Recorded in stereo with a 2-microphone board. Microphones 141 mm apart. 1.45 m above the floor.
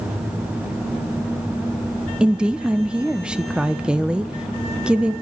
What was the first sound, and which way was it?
A woman speaking, 5° right (ahead or behind).